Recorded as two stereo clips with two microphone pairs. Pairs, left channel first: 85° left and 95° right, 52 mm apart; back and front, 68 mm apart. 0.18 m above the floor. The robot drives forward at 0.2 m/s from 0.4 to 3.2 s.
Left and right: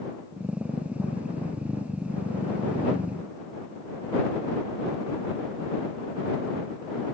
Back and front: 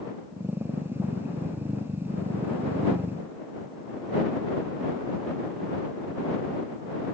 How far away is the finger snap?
No finger snap in this recording.